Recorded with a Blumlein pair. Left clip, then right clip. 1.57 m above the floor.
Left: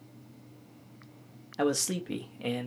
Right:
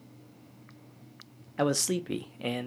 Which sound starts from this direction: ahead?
A man speaking, at 1.6 s.